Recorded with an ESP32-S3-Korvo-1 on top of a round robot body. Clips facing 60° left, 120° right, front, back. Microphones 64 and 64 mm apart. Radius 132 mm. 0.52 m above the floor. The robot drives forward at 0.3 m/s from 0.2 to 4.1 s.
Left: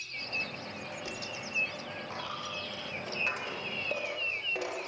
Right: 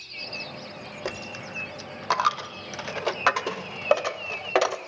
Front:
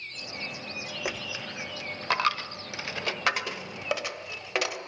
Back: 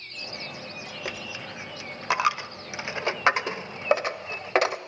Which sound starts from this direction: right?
A dropped coin, at 1.1 s.